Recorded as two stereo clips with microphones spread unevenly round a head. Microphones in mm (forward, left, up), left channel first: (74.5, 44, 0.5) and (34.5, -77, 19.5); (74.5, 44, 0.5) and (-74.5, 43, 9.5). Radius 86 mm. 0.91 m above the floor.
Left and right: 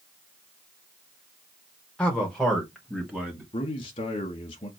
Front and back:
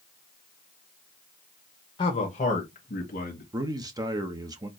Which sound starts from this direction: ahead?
A man speaking, at 2.0 s.